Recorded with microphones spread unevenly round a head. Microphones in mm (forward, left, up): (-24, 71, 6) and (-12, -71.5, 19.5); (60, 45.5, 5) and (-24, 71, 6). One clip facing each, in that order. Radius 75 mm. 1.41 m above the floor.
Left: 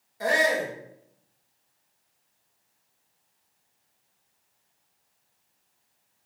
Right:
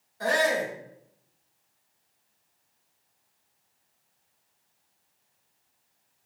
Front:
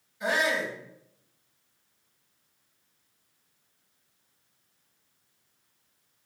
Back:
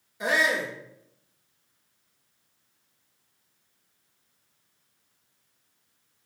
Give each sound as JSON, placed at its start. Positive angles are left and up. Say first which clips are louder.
{"t": 0.2, "sound": "a shout", "louder": "left 1 dB, back 2 dB", "azimuth_deg": 170, "distance_m": 1.6}